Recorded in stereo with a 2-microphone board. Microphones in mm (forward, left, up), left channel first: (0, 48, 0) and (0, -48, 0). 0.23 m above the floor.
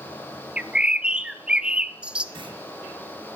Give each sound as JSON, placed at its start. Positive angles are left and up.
{"t": 0.6, "sound": "a bird", "side_deg": -10, "distance_m": 0.7}
{"t": 2.4, "sound": "a clunk", "side_deg": -60, "distance_m": 3.5}